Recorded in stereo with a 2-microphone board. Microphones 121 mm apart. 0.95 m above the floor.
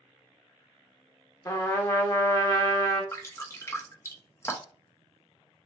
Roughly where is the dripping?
Left.